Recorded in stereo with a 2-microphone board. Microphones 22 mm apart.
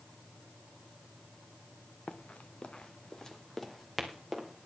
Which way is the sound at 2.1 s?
85° left.